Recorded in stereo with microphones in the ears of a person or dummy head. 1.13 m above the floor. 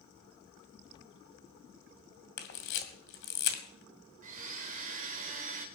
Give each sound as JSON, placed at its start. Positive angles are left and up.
{"t": 2.4, "sound": "a camera shutter", "side_deg": 65, "distance_m": 2.5}
{"t": 4.2, "sound": "a blender", "side_deg": -50, "distance_m": 2.0}